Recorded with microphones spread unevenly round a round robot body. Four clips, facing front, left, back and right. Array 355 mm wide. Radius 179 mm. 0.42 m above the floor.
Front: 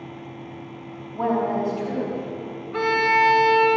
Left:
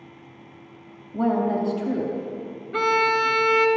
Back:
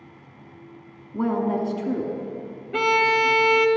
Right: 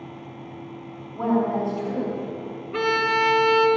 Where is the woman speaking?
125° left, 4 m.